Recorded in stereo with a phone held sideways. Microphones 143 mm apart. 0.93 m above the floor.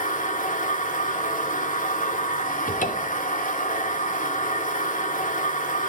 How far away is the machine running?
About 2 m.